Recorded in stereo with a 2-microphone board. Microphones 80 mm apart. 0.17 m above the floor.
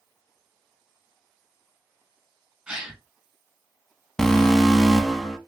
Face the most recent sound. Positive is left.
turn(degrees=5)  # may be behind; listen again after turning